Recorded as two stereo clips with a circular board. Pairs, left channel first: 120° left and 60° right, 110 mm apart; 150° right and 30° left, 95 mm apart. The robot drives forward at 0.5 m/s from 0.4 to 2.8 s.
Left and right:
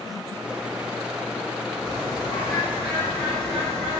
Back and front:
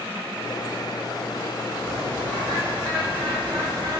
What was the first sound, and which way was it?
A bird, 140° left.